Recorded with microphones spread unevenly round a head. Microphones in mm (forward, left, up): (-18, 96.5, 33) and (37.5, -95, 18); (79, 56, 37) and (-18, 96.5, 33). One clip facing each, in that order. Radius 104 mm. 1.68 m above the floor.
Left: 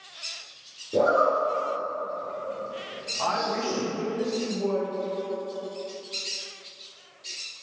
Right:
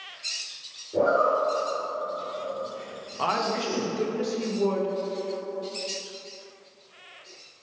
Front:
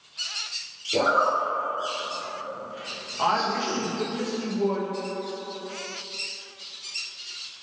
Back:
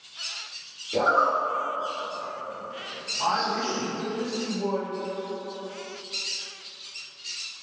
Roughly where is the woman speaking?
Ahead right.